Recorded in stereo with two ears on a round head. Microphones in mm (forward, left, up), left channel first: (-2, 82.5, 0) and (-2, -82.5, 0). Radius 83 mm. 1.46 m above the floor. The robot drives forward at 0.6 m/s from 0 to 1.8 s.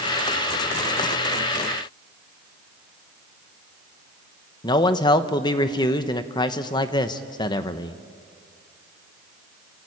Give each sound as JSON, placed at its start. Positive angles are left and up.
{"t": 4.6, "sound": "a man speaking", "side_deg": 20, "distance_m": 1.0}